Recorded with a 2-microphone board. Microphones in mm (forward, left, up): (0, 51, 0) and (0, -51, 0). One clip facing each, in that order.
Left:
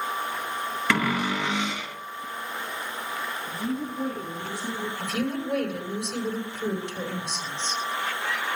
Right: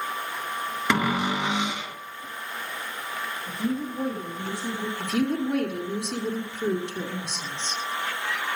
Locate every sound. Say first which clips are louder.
0.9 s a cupboard door: right 1 dB; 20° right (ahead or behind), 0.7 m
3.5 s a woman speaking: right 3 dB; 50° right (ahead or behind), 7.5 m
5.0 s a woman speaking: right 5 dB; 65° right (ahead or behind), 3 m